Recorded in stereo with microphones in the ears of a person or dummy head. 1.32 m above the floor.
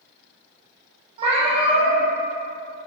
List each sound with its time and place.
1.2 s a cat meowing: 30° right (ahead or behind), 1.2 m